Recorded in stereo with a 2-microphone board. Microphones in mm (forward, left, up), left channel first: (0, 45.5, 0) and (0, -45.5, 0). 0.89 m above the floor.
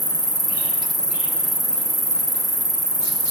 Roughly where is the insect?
Left.